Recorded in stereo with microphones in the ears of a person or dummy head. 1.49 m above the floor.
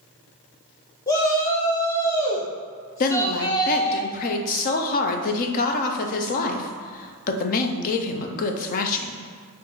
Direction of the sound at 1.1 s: 15° left (ahead or behind).